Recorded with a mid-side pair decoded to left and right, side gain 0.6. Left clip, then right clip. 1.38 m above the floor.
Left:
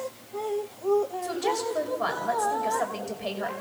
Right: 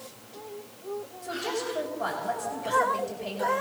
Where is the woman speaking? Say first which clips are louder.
Left 4 dB; 30° left, 5 m.